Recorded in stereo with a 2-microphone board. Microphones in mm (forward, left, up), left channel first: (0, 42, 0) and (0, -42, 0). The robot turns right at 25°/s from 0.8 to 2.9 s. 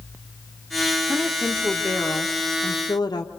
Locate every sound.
1.1 s a woman speaking: 10° left, 1.2 m; by 3.3 s 55° left, 1.2 m